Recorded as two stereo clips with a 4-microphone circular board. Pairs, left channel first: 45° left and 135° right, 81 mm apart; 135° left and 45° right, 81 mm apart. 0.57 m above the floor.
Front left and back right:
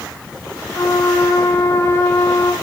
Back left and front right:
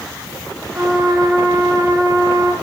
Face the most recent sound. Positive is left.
turn(degrees=-5)